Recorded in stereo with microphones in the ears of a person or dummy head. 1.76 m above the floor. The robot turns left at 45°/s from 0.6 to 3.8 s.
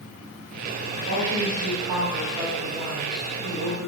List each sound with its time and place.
1.1 s a woman speaking: 115° right, 1.0 m; by 3.9 s 120° left, 1.0 m